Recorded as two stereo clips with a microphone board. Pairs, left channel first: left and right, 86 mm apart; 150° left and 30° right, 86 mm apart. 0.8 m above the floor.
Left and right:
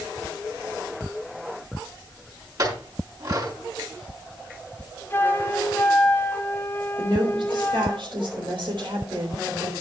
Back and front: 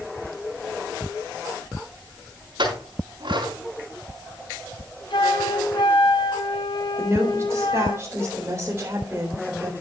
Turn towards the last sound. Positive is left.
turn(degrees=-85)